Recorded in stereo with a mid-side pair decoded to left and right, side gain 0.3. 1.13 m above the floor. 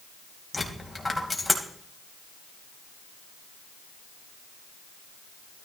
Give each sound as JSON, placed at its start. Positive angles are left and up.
{"t": 0.5, "sound": "a dropped coin", "azimuth_deg": 20, "distance_m": 2.5}